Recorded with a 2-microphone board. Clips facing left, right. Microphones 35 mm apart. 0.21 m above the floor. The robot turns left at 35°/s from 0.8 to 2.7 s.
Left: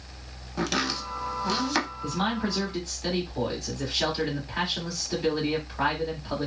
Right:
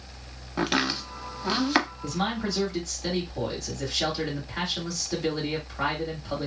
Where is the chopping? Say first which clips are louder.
Right 2 dB; 25° right (ahead or behind), 0.5 m; by 1.9 s 20° right (ahead or behind), 0.5 m.